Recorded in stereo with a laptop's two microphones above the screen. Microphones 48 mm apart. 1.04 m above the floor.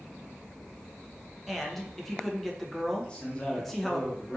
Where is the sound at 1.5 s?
5° left (ahead or behind), 0.6 m.